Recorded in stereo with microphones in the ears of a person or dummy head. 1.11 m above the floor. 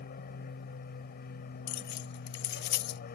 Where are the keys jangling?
55° left (ahead or behind).